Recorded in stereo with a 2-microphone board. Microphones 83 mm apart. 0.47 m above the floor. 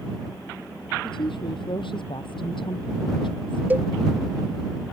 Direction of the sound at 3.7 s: 25° right (ahead or behind).